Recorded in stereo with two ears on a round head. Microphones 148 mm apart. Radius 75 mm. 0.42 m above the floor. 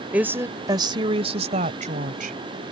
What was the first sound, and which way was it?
A woman speaking, 10° right (ahead or behind).